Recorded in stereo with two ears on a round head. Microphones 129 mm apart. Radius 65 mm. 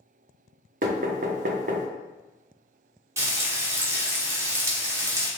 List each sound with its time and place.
0.8 s knocking: 60° right (ahead or behind), 0.7 m
3.2 s frying: 20° right (ahead or behind), 0.9 m